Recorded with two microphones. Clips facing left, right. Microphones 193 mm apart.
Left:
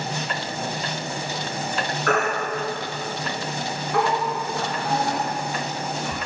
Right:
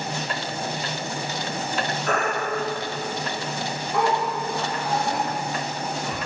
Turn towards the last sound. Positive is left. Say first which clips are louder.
# left 3 dB
turn(degrees=75)  # may be behind; listen again after turning